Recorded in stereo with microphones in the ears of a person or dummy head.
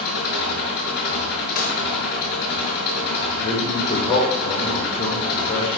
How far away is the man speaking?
About 4.5 m.